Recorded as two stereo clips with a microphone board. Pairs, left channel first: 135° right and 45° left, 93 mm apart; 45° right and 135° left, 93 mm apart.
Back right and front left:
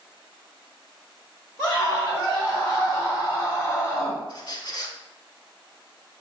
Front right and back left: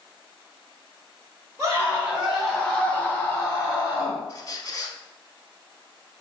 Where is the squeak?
95° right, 0.5 m.